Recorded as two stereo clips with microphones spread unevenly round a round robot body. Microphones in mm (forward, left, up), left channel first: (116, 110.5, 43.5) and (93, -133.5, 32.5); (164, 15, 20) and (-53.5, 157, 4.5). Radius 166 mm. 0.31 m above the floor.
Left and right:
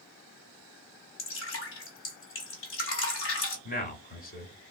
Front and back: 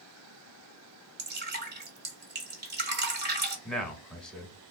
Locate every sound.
1.2 s dripping: 110° left, 1.5 m
3.6 s a man speaking: 55° left, 1.2 m